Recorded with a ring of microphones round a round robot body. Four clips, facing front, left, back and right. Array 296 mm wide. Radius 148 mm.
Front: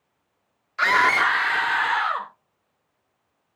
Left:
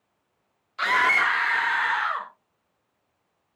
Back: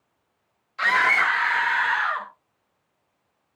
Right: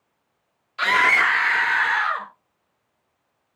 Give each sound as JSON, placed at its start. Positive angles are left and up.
{"t": 0.8, "sound": "a scream", "azimuth_deg": -30, "distance_m": 0.7}